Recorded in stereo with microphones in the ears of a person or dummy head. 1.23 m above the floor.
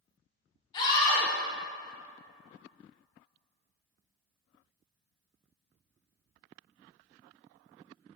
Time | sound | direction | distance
0.7 | a scream | 25° left (ahead or behind) | 2.5 m